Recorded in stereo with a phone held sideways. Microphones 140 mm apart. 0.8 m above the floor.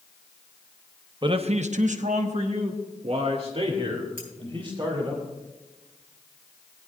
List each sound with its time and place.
1.2 s a man speaking: 35° right (ahead or behind), 0.8 m
4.2 s cutlery clinking: 85° left, 5.5 m